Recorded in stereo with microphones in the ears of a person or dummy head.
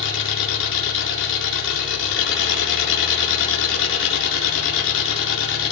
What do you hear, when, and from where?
0.0 s an engine running: 70° left (ahead or behind), 7.5 m